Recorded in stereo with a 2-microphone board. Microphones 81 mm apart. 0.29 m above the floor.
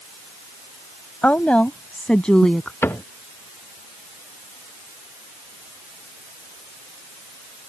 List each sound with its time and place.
1.2 s a woman speaking: 20° left (ahead or behind); by 2.7 s 10° left (ahead or behind)
2.8 s a cupboard door: 25° left (ahead or behind)